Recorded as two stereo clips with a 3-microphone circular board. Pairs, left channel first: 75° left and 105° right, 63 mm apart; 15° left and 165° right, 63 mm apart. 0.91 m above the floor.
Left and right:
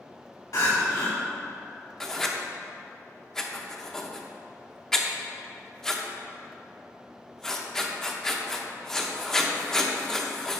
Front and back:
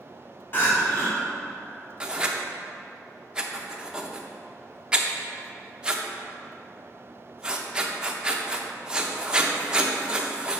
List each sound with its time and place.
0.5 s crying: 65° left, 2.0 m
2.0 s writing: 145° left, 0.6 m